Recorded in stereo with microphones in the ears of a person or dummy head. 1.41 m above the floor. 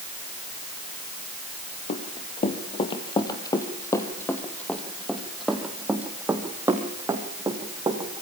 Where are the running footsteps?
40° left (ahead or behind), 2.5 m; by 8.2 s 20° right (ahead or behind), 4 m.